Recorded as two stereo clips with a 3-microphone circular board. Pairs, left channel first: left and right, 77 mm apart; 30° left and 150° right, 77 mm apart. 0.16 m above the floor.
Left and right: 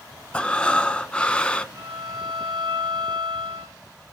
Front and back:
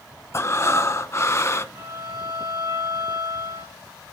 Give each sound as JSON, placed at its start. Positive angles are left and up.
{"t": 0.3, "sound": "breathing", "azimuth_deg": 25, "distance_m": 0.5}
{"t": 1.8, "sound": "a violin", "azimuth_deg": -120, "distance_m": 3.0}